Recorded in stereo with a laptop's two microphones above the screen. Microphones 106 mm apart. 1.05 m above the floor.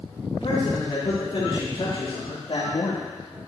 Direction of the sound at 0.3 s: 65° left (ahead or behind).